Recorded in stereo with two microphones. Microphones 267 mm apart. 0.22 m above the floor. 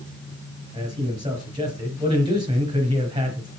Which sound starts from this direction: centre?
A man speaking, at 0.7 s.